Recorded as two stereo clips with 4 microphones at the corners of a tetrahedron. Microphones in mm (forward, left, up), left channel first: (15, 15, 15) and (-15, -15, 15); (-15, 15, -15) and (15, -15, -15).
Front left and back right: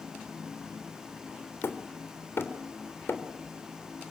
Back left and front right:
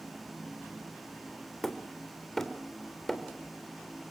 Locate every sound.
1.6 s hammering: 55° left, 3 m